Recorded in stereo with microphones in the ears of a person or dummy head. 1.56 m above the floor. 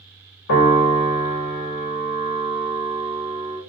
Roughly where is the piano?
Left.